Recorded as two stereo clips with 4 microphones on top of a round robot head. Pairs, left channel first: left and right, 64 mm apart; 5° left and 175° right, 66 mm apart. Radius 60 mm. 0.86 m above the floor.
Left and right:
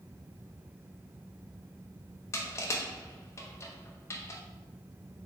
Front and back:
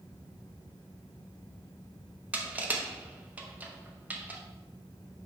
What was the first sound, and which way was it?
Crushing, 120° left.